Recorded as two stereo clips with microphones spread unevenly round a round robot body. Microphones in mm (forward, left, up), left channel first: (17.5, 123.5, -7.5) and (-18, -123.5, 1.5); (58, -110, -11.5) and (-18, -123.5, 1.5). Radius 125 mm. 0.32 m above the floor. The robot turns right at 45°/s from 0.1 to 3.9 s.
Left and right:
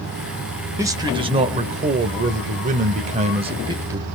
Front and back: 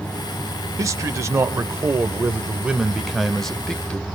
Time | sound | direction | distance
0.8 | a man speaking | 170° right | 0.9 m